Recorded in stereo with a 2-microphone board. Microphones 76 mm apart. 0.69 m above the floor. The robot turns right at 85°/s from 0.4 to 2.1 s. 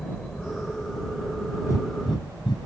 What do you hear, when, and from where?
0.0 s a helicopter: 170° left; by 2.7 s 45° right
1.6 s breathing: 40° left (ahead or behind); by 2.6 s 75° left (ahead or behind)